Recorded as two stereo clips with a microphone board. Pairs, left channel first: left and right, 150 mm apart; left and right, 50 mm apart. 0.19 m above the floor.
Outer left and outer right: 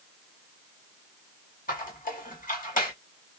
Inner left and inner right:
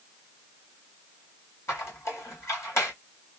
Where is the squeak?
60° left (ahead or behind), 2 m.